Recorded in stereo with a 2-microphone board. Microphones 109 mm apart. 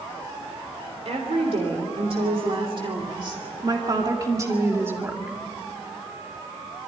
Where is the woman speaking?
65° right (ahead or behind), 3 m; by 5.4 s 15° right (ahead or behind), 2 m.